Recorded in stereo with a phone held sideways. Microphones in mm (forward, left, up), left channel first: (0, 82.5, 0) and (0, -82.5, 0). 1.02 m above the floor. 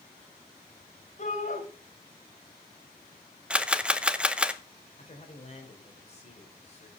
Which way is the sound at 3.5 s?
5° right (ahead or behind).